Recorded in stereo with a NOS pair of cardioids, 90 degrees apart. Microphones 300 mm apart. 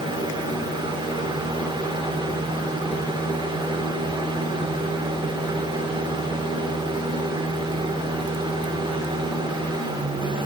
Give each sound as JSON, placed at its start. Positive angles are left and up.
{"t": 0.0, "sound": "a fan", "azimuth_deg": -15, "distance_m": 1.8}